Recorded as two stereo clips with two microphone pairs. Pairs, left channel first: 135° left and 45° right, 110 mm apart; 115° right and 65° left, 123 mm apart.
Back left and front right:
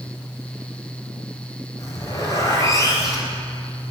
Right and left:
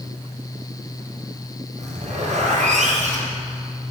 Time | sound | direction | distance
1.8 | a zipper | 75° left | 4 m